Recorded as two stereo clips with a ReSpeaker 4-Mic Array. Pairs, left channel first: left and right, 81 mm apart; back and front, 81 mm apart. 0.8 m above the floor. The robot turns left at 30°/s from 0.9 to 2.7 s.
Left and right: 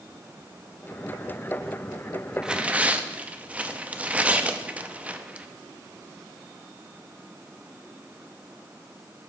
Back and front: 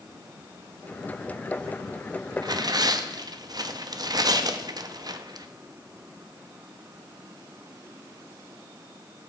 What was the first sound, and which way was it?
Tearing paper, 10° right.